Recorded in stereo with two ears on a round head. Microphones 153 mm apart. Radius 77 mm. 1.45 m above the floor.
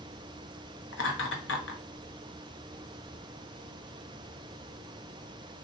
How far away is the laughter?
About 0.9 m.